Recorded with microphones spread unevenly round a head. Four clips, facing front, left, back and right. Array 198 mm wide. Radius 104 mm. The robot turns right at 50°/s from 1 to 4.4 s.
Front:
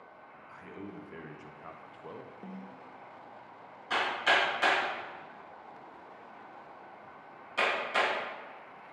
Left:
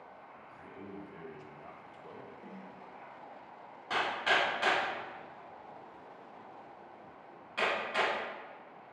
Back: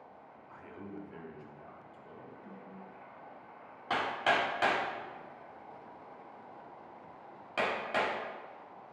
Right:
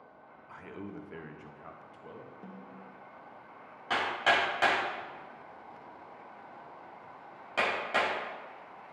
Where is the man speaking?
65° right, 0.9 m; by 2.3 s straight ahead, 0.9 m.